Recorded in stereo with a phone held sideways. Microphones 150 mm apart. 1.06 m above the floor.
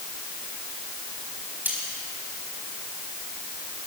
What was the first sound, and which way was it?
Cutlery clinking, 10° right (ahead or behind).